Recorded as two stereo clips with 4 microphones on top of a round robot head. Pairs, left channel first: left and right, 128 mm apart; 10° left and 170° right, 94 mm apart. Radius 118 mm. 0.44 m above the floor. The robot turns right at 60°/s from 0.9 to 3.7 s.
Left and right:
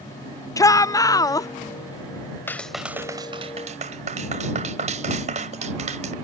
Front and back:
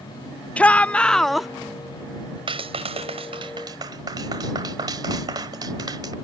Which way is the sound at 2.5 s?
165° left.